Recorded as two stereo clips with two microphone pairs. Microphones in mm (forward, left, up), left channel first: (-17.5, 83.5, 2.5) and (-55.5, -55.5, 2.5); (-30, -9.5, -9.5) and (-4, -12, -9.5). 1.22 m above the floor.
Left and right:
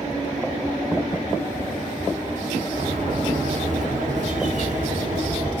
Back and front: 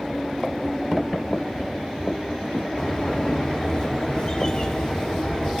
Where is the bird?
130° right, 0.9 m.